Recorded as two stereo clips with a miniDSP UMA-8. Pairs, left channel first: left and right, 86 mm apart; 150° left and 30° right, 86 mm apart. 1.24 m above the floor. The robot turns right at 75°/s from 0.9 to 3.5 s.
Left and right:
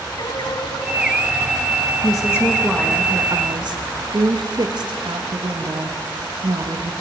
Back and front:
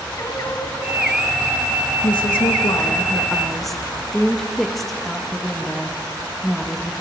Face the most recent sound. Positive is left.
turn(degrees=-120)